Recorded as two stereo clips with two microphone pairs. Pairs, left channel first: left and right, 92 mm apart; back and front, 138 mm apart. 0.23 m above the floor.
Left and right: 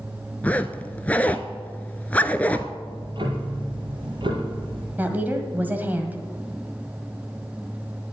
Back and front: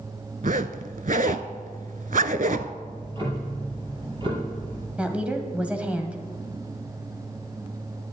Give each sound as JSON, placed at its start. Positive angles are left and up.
{"t": 0.4, "sound": "a zipper", "azimuth_deg": 15, "distance_m": 0.6}
{"t": 2.8, "sound": "ticking", "azimuth_deg": -55, "distance_m": 3.5}
{"t": 5.0, "sound": "a woman speaking", "azimuth_deg": -65, "distance_m": 1.5}